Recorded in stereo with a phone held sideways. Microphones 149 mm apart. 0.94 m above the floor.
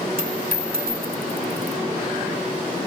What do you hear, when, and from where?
0.2 s a dropped coin: 75° right (ahead or behind), 1.5 m